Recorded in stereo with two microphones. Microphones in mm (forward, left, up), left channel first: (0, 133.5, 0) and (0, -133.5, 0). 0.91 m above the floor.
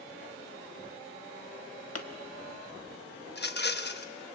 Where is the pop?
65° left (ahead or behind), 1.5 m.